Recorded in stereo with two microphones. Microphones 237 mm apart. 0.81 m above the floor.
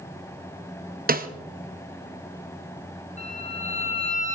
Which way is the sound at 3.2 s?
35° right (ahead or behind).